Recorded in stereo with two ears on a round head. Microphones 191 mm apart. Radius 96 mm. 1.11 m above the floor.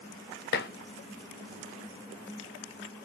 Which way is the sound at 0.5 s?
45° left (ahead or behind).